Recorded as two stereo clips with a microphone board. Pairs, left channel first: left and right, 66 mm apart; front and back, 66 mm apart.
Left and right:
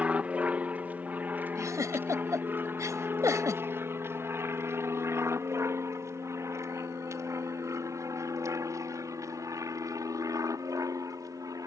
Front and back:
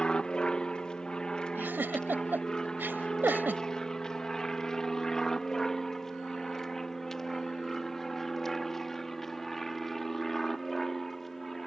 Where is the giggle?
125° right.